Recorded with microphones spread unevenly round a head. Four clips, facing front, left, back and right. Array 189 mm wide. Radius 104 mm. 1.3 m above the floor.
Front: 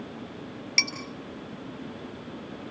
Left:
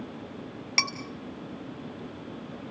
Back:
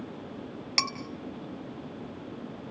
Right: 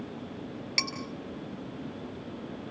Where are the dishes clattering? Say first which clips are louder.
Left 5 dB, back 2 dB; 140° left, 3 m.